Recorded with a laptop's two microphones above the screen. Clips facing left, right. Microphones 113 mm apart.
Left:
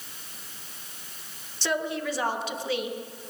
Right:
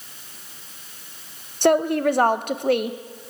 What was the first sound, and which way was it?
A woman speaking, 55° right (ahead or behind).